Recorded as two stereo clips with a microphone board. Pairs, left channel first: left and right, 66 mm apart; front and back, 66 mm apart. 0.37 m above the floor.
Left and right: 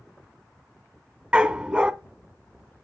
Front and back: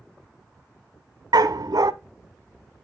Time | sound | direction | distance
1.3 | a dog barking | 165° right | 0.7 m